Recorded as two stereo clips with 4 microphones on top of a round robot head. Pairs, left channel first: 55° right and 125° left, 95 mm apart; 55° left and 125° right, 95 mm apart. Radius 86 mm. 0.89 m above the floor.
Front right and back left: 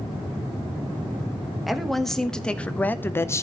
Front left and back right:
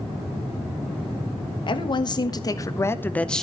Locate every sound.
1.7 s a woman speaking: 35° left, 1.4 m; by 3.4 s 30° right, 0.8 m